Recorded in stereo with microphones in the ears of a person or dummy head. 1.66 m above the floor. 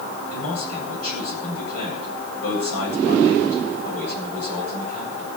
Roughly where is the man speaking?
Left.